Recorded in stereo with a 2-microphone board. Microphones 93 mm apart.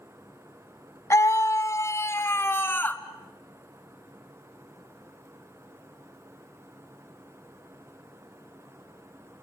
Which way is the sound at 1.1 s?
35° left (ahead or behind).